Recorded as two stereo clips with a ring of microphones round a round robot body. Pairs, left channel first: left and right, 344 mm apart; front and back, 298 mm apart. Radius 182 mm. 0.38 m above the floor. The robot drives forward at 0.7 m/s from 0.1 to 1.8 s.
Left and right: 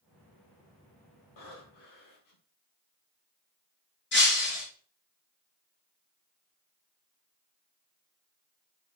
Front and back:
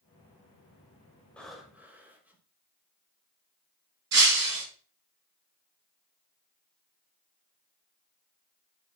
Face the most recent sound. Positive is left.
turn(degrees=150)